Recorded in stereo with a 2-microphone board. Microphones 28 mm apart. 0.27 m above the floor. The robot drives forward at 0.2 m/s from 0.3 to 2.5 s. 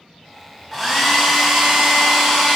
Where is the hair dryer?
5° right (ahead or behind), 0.7 m.